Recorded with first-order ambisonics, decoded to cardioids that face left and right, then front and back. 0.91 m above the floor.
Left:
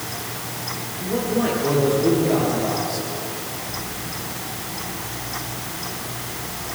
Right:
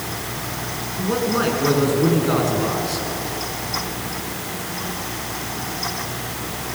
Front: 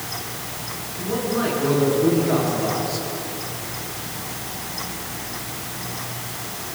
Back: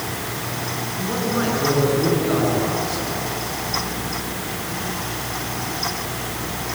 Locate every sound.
1.0 s a man speaking: 100° right, 8.5 m